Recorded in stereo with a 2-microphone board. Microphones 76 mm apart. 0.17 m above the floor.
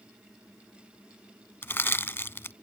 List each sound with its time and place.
1.6 s crushing: 30° left (ahead or behind)